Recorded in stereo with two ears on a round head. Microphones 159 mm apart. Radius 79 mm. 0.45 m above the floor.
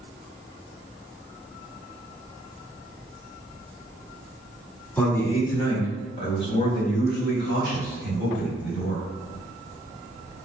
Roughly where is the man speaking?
Centre.